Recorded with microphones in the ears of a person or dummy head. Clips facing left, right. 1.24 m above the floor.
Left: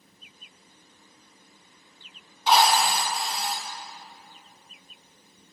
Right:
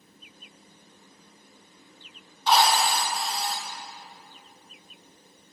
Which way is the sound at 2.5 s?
5° left (ahead or behind).